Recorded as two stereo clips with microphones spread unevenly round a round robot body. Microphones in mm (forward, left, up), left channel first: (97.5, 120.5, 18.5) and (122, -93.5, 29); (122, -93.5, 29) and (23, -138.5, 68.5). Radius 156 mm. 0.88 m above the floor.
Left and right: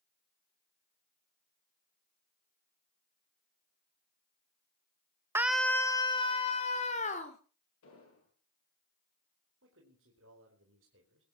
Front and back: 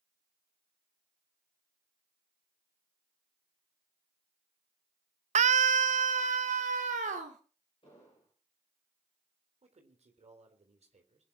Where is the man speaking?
130° right, 4 m.